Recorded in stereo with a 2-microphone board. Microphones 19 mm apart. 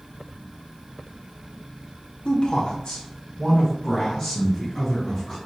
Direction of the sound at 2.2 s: 45° left (ahead or behind).